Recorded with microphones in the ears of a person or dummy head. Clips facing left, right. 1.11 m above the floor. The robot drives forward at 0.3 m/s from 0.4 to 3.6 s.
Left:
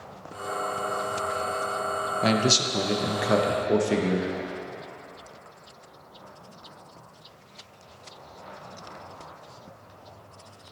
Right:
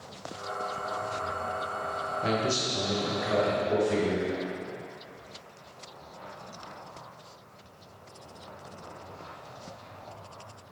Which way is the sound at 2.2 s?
75° left (ahead or behind).